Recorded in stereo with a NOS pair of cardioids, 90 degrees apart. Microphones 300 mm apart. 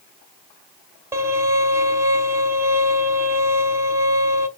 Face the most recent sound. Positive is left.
turn(degrees=-10)